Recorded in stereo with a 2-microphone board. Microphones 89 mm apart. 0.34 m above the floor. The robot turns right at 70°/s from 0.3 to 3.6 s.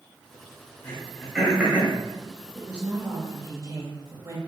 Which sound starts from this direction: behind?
A woman speaking, at 2.5 s.